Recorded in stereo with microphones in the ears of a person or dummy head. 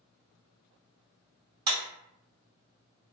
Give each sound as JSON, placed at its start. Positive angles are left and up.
{"t": 1.7, "sound": "a clap", "side_deg": -30, "distance_m": 1.7}